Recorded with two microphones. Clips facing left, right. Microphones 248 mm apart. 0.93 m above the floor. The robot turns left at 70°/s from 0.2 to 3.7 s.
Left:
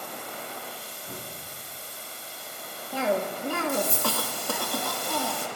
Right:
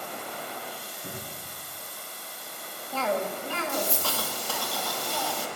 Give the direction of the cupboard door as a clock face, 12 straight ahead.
2 o'clock.